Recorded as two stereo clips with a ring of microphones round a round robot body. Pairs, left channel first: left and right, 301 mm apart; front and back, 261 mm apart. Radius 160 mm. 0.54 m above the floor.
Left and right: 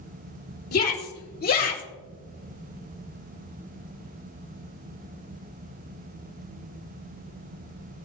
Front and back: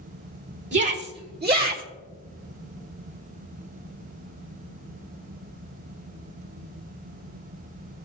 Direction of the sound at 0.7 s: 140° left.